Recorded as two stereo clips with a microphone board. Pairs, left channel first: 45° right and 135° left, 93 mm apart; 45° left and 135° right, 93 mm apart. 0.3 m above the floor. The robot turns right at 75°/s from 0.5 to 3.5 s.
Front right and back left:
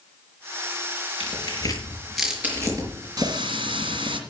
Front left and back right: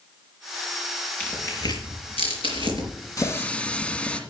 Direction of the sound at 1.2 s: 30° right.